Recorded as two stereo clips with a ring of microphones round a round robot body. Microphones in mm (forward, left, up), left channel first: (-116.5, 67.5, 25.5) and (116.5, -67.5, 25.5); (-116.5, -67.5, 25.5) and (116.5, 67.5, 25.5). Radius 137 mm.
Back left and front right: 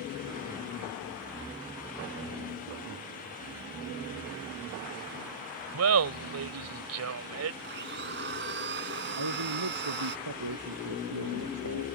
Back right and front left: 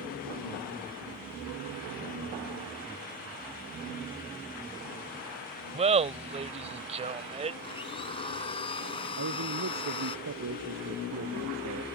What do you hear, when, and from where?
5.7 s laughter: 30° right
7.6 s a blender: 80° right
9.2 s a man speaking: 15° right